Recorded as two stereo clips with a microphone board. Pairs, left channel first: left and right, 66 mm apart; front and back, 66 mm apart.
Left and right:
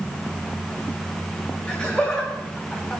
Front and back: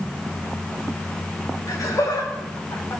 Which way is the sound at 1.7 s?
30° left.